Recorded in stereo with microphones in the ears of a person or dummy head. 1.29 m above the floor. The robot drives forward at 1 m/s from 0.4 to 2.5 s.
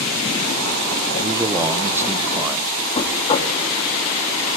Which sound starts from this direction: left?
Knocking, at 3.0 s.